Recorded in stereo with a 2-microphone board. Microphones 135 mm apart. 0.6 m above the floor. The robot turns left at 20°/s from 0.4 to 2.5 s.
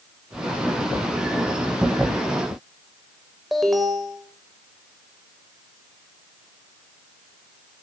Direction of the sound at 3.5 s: Centre (ahead or behind).